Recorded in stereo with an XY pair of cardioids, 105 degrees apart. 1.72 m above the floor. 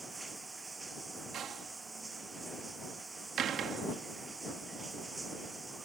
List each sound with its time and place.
0.0 s running water: 20° right
1.3 s a door slam: 65° right